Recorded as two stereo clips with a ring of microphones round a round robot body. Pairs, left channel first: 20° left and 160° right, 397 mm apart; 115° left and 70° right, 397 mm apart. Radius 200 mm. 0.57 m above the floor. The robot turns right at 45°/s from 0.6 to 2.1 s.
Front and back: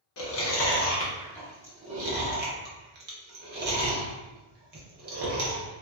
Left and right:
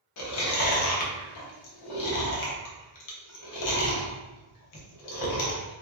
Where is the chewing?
75° left, 0.8 m; by 5.8 s 140° left, 0.8 m.